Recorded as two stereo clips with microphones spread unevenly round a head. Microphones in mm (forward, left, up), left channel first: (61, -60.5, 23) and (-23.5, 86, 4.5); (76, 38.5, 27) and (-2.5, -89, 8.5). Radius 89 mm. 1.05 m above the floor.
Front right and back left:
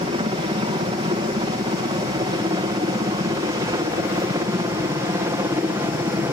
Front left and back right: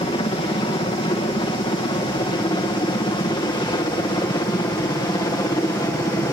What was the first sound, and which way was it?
A helicopter, 95° left.